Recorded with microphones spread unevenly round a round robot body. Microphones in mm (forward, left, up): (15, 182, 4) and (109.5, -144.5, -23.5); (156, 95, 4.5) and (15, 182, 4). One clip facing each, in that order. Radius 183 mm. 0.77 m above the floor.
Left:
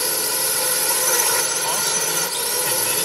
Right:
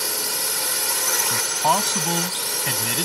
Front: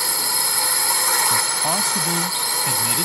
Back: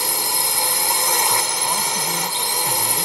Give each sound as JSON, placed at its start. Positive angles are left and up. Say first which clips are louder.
{"t": 0.0, "sound": "a drone", "louder": "left 4 dB, back 2 dB", "azimuth_deg": 80}
{"t": 1.3, "sound": "a man speaking", "louder": "right 1 dB, even", "azimuth_deg": -45}